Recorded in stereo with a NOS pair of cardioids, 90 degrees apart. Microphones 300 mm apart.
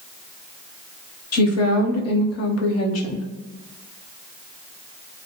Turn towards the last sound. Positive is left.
turn(degrees=55)